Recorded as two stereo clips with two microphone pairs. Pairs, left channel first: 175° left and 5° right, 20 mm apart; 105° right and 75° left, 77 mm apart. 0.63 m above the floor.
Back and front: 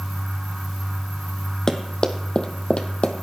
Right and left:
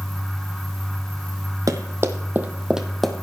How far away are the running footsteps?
About 1.5 m.